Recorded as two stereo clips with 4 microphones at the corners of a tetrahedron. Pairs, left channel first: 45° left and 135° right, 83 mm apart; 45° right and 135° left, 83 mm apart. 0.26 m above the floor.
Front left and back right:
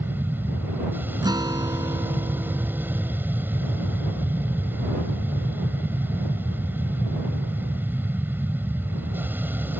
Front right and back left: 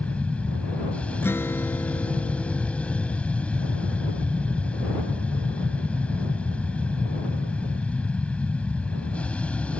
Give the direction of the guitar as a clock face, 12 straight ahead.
4 o'clock.